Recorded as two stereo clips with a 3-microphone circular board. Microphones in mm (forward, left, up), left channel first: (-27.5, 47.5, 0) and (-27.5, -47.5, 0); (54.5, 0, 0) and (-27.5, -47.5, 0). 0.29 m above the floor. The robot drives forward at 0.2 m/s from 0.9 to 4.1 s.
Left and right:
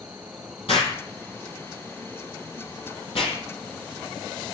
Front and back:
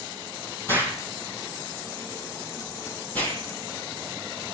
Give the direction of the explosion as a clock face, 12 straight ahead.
9 o'clock.